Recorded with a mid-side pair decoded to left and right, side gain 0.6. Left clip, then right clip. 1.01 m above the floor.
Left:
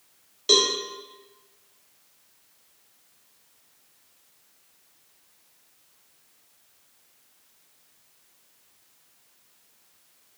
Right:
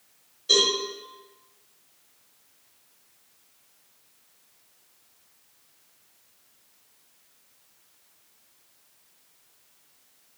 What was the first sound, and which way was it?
A cowbell, 65° left.